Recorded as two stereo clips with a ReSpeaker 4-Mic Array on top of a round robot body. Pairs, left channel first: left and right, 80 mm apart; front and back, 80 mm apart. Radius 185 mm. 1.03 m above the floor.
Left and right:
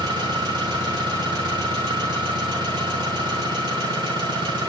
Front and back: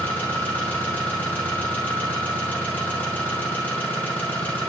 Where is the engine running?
70° right, 6.5 m.